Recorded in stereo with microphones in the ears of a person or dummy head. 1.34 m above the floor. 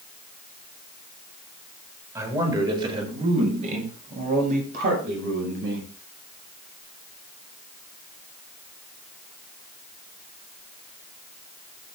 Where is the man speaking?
20° right (ahead or behind), 6.5 m; by 5.9 s 65° right (ahead or behind), 8.5 m.